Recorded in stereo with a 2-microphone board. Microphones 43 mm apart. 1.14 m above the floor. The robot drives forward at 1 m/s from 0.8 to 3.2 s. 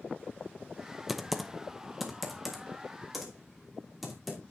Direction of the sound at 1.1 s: Centre (ahead or behind).